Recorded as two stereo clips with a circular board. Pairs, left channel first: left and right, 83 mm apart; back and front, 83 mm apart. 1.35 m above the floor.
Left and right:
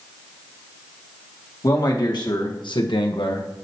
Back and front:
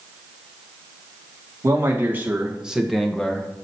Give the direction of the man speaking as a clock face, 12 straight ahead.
10 o'clock.